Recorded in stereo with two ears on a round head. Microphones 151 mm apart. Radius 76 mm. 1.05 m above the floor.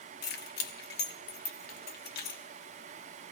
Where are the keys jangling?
70° left (ahead or behind), 1.3 m.